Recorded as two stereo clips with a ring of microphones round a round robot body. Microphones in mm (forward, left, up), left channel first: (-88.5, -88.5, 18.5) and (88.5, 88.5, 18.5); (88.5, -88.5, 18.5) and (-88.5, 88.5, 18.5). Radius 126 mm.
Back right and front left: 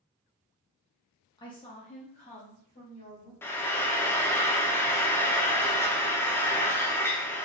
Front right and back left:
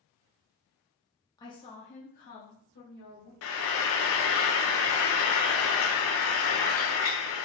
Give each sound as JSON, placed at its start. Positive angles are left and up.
{"t": 1.4, "sound": "a woman speaking", "azimuth_deg": -95, "distance_m": 0.8}
{"t": 3.4, "sound": "frying", "azimuth_deg": -55, "distance_m": 0.6}